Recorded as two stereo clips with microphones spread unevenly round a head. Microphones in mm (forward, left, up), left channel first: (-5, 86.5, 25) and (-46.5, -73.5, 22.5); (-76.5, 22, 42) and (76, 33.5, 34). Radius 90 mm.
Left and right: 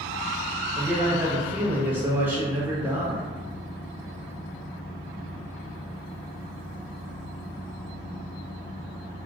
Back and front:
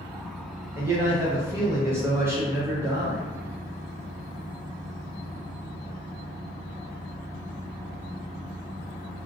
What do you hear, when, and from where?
0.8 s a man speaking: 40° right, 0.6 m